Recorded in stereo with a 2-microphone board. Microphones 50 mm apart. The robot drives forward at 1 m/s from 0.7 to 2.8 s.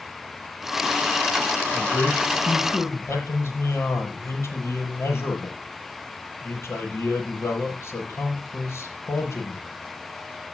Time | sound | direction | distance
1.7 | a man speaking | 55° left (ahead or behind) | 8.5 m